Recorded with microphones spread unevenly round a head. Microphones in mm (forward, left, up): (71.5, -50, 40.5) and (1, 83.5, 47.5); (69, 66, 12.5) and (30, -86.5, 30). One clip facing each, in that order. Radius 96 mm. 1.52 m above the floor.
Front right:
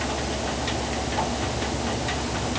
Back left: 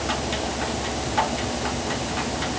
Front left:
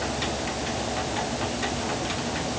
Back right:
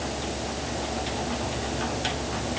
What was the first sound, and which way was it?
Only background noise.